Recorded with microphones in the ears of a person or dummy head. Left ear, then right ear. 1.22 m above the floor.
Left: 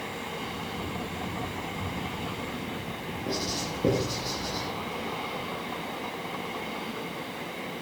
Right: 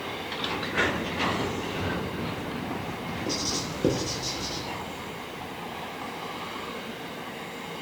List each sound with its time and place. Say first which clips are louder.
3.3 s writing: right 1 dB; 65° right (ahead or behind), 10 m